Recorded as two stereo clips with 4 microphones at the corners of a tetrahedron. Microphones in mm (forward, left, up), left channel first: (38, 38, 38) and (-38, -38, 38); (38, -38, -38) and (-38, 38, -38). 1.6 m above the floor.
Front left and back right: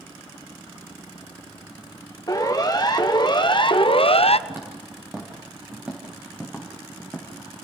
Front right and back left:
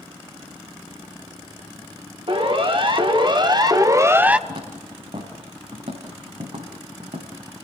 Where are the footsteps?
155° left, 5.5 m; by 7.3 s 130° left, 6 m.